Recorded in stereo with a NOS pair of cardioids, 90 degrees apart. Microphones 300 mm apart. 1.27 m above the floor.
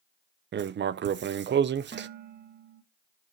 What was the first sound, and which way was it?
Writing, 40° right.